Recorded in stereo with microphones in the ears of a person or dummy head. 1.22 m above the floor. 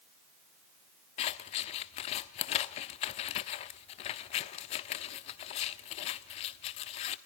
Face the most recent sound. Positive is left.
turn(degrees=30)  # may be behind; listen again after turning